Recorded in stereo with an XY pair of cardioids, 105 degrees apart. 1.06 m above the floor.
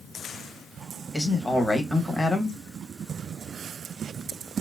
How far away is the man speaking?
About 0.9 m.